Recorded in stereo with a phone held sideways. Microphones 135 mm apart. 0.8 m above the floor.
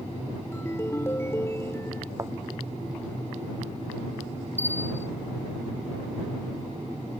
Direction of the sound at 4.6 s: 55° right (ahead or behind).